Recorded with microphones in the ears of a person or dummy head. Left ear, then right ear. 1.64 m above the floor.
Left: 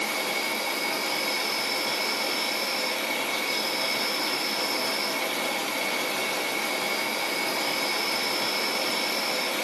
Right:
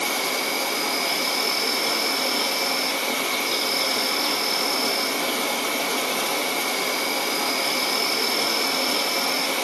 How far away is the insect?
About 0.8 m.